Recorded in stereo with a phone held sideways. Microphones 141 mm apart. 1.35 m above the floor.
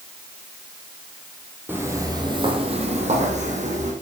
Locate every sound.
1.7 s footsteps: 15° right (ahead or behind), 1.9 m; by 3.9 s 55° right (ahead or behind), 3 m